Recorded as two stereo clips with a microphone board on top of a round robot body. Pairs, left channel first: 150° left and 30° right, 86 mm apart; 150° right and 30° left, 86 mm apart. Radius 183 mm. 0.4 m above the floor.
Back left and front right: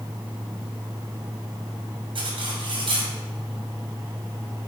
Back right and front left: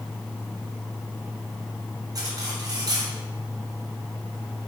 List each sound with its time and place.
2.1 s cutlery clinking: 15° right, 2 m